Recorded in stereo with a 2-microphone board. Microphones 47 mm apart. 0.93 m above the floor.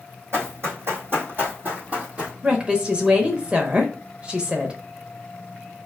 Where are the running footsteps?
60° right (ahead or behind), 2.0 m; by 2.3 s 25° right (ahead or behind), 1.5 m.